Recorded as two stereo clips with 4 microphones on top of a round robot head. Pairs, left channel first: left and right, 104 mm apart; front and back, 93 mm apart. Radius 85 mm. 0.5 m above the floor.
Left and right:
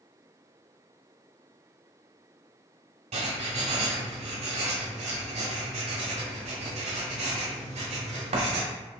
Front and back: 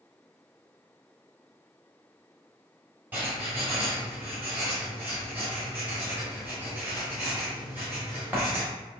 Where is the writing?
100° right, 1.4 m.